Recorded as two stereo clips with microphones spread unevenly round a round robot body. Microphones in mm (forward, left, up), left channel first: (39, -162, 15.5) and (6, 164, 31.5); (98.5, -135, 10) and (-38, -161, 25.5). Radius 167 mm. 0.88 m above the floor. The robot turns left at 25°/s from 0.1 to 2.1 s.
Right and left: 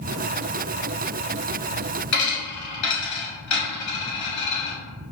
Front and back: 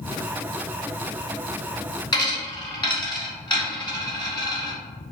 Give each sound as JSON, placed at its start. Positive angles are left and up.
{"t": 2.1, "sound": "a dropped coin", "azimuth_deg": -50, "distance_m": 1.4}